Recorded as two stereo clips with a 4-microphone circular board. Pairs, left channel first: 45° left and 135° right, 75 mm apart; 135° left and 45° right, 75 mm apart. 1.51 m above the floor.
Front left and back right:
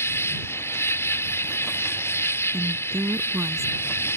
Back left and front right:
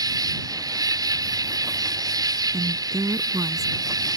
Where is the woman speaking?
90° right.